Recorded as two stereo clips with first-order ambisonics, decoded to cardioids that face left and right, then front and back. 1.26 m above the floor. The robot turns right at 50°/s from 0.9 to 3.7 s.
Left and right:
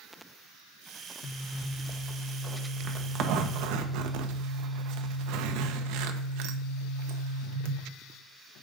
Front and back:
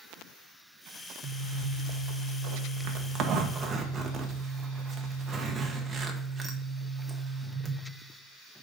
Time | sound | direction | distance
1.2 | a zipper | 130° left | 1.0 m